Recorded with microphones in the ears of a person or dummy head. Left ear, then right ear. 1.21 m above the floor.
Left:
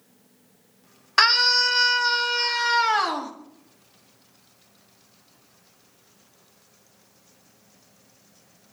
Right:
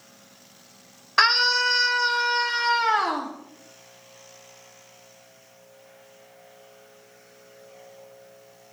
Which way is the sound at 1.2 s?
10° left (ahead or behind).